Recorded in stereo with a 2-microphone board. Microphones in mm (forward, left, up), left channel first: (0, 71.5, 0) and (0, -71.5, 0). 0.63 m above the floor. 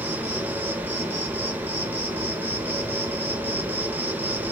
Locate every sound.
0.0 s an insect: 15° right (ahead or behind), 0.7 m